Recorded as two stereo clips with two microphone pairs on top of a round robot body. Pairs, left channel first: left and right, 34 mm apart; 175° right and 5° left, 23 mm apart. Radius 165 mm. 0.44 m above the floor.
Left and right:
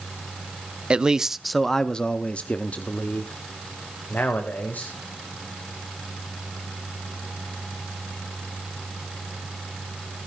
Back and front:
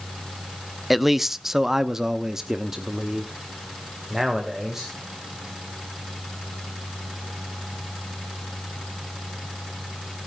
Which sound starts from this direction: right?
A man speaking, at 0.9 s.